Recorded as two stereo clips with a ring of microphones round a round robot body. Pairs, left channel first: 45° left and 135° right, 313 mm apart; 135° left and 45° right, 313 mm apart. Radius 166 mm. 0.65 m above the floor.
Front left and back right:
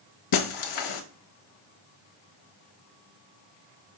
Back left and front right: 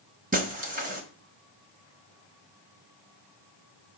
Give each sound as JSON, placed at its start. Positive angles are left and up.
{"t": 0.3, "sound": "breaking glass", "azimuth_deg": 20, "distance_m": 1.1}